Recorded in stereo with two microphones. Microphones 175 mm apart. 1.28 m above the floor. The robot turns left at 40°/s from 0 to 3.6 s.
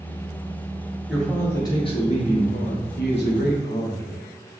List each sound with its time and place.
1.1 s a man speaking: straight behind, 1.0 m; by 4.6 s 80° left, 1.0 m